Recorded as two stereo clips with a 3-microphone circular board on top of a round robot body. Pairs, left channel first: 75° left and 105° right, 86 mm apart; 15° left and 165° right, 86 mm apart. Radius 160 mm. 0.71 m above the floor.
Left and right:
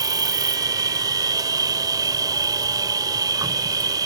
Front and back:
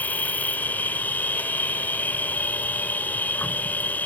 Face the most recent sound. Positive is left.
turn(degrees=-60)